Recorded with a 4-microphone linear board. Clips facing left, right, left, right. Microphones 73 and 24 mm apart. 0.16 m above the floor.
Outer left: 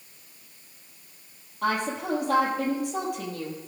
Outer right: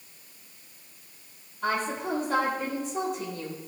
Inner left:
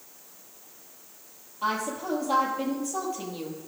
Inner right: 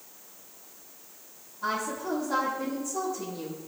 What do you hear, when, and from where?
1.6 s a woman speaking: 70° left (ahead or behind), 4 m